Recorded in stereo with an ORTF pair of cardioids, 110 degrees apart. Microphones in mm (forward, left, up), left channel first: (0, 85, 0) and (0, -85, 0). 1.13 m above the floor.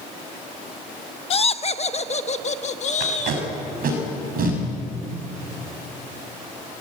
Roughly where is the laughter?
Ahead left.